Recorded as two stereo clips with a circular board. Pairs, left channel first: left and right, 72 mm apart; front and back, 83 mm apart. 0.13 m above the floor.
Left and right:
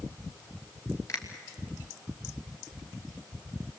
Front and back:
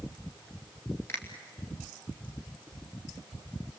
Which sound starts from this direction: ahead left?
A finger snap, at 1.1 s.